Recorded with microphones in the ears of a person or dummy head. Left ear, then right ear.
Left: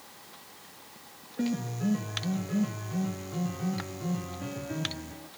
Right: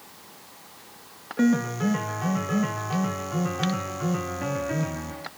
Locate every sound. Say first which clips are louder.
1.4 s a piano: right 9 dB; 50° right (ahead or behind), 1.0 m